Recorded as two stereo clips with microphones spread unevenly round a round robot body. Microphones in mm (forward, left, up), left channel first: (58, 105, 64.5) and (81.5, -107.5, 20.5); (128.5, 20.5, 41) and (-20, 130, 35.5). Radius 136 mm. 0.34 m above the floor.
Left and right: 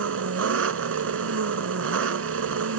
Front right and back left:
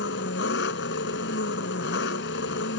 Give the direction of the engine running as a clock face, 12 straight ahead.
3 o'clock.